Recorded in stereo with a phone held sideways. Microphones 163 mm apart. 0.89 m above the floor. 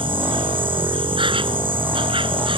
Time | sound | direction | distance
0.0 | an insect | 30° right (ahead or behind) | ?